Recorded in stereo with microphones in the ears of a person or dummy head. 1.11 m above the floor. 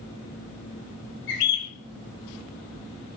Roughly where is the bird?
Left.